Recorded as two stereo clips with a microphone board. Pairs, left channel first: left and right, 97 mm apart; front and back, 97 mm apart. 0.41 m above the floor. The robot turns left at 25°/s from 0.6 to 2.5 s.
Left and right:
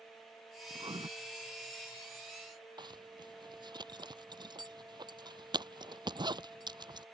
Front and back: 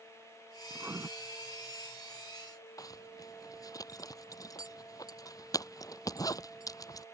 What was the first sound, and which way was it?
Writing, 110° right.